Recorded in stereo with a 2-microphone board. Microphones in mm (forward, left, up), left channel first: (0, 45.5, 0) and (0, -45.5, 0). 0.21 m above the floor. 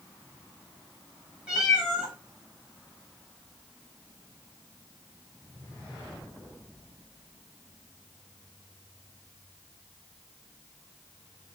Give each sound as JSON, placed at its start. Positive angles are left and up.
{"t": 1.5, "sound": "a cat meowing", "side_deg": -10, "distance_m": 3.0}